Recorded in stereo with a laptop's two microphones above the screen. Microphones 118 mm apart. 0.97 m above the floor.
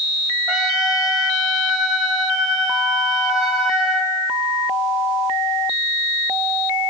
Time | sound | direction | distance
0.5 | a trumpet | 5° right (ahead or behind) | 5 m